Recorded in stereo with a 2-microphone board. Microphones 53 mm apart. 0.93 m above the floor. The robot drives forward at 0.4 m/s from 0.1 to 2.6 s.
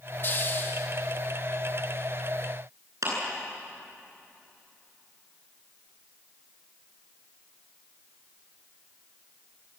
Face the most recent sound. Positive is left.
turn(degrees=-80)